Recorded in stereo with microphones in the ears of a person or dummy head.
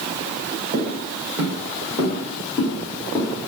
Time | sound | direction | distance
0.7 | footsteps | 20° right (ahead or behind) | 1.6 m